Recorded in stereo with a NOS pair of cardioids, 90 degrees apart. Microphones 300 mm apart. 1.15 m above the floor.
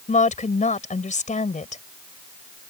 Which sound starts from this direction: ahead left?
A woman speaking, at 0.1 s.